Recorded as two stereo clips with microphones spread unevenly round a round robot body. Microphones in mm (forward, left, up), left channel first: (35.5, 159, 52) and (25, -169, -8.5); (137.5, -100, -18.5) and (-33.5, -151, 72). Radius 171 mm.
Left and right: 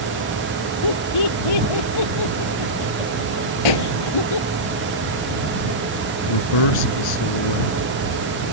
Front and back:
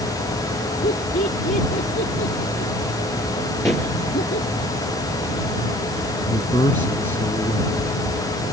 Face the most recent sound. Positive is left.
turn(degrees=95)